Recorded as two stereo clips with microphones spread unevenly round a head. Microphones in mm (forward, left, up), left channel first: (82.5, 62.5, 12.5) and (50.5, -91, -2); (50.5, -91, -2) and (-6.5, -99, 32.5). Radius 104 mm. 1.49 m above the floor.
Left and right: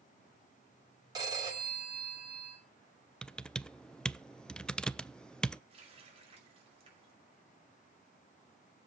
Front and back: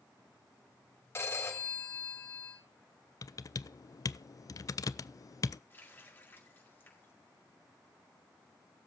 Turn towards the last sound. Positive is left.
turn(degrees=-50)